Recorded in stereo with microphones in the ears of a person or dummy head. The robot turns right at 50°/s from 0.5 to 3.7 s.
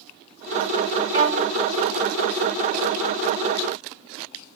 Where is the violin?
30° right (ahead or behind), 1.9 m; by 1.6 s 55° right (ahead or behind), 1.9 m.